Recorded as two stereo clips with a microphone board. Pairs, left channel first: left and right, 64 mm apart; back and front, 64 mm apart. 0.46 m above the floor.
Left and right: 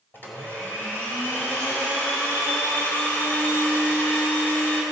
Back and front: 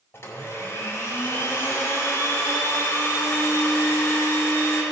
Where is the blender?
140° left, 2 m.